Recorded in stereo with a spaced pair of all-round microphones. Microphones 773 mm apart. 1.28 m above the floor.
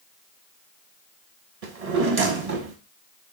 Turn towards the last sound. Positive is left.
turn(degrees=-50)  # may be behind; listen again after turning